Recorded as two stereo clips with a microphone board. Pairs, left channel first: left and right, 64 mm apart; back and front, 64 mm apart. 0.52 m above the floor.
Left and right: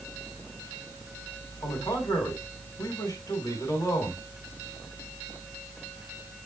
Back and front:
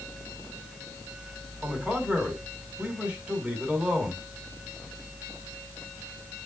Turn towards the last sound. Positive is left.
turn(degrees=70)